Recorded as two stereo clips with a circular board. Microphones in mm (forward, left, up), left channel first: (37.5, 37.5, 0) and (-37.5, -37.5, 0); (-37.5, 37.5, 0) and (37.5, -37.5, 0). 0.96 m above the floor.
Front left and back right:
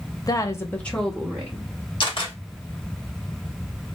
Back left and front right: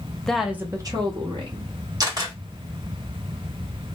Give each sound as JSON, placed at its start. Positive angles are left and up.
{"t": 0.2, "sound": "a woman speaking", "azimuth_deg": 55, "distance_m": 0.6}
{"t": 2.0, "sound": "a camera shutter", "azimuth_deg": 5, "distance_m": 1.0}